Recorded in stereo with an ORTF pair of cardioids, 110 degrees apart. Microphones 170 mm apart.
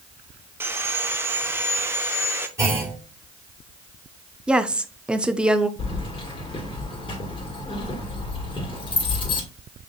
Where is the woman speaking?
5° right, 0.5 m.